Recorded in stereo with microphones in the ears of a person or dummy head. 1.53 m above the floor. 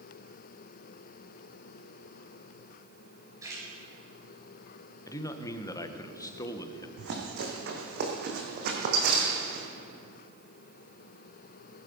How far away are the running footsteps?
About 3.5 m.